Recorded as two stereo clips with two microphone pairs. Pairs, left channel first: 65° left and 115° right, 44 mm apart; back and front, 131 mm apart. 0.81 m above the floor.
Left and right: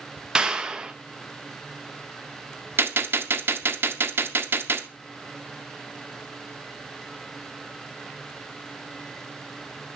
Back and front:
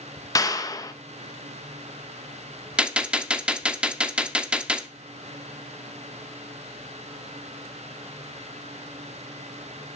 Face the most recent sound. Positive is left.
turn(degrees=-80)